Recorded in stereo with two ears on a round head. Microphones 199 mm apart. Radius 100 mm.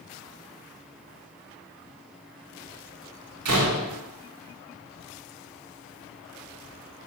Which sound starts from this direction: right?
A door slam, at 3.5 s.